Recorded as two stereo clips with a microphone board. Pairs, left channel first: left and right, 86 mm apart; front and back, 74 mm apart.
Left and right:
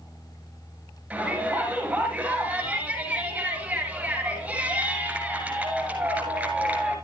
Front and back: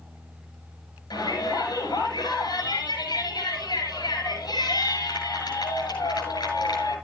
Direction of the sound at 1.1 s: 15° right.